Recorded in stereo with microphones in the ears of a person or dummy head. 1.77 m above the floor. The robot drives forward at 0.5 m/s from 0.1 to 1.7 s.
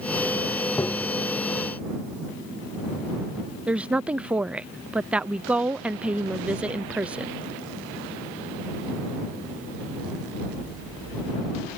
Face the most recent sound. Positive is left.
turn(degrees=-5)  # may be behind; listen again after turning